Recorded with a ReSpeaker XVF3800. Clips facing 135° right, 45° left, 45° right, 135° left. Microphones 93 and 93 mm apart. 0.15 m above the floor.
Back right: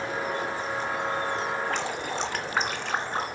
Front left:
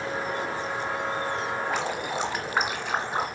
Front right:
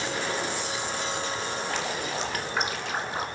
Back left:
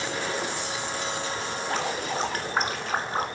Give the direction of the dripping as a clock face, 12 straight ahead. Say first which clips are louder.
Front left 1 dB, back left 2 dB; 8 o'clock.